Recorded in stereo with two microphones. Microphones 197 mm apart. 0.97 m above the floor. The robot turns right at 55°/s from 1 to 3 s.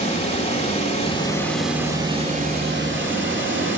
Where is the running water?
145° left, 2.5 m; by 3.8 s 105° right, 2.5 m.